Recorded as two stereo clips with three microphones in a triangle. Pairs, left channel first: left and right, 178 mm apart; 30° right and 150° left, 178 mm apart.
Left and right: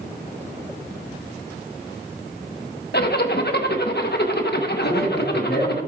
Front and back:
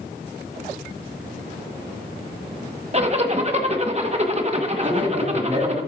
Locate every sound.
2.9 s a zipper: 100° left, 1.2 m
4.8 s a man speaking: 90° left, 7 m